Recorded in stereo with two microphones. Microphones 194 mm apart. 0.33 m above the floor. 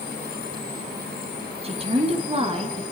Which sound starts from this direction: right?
A woman speaking, at 1.6 s.